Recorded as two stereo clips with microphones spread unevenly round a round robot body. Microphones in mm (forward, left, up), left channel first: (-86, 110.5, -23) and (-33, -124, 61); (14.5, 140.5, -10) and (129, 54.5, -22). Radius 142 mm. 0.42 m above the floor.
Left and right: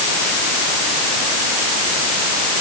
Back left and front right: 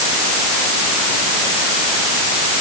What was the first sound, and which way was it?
Only background noise.